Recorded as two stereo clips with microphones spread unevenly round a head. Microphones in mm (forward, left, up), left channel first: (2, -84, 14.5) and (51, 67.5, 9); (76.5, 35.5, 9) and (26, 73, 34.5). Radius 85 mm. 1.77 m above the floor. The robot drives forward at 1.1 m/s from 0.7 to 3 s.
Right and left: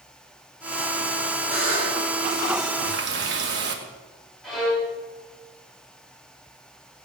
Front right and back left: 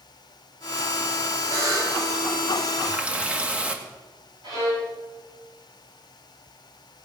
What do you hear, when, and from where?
1.5 s a buzzer: 130° left, 5 m; by 2.0 s 135° left, 5.5 m
2.9 s a running tap: 80° left, 1.9 m; by 3.8 s 85° left, 1.9 m
4.4 s a violin: 160° left, 6.5 m